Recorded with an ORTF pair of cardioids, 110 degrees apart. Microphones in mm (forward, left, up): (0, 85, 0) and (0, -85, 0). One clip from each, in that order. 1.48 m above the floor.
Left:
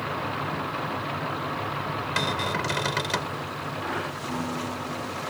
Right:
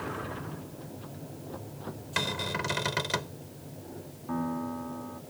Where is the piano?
5° right.